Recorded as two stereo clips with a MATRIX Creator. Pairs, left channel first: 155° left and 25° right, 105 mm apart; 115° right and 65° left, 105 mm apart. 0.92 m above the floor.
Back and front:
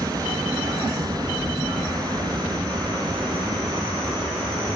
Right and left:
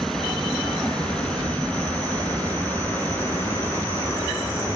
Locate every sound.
0.0 s an aircraft: 30° right; by 4.8 s 50° right